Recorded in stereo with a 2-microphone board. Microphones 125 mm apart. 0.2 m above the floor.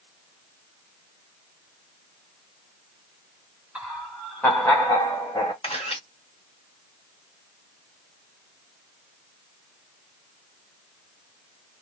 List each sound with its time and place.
3.8 s laughter: 10° right (ahead or behind), 1.4 m; by 5.5 s 35° left (ahead or behind), 1.6 m
5.6 s a camera shutter: 50° left (ahead or behind), 1.6 m